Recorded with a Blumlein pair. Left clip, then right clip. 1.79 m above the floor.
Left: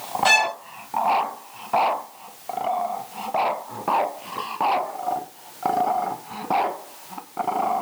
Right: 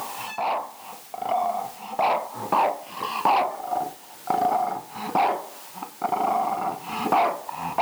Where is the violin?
50° left.